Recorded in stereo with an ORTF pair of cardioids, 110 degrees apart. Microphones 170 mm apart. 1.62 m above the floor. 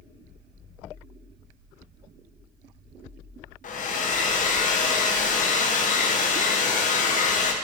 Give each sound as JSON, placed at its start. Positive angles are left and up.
{"t": 3.6, "sound": "a hair dryer", "azimuth_deg": 50, "distance_m": 1.6}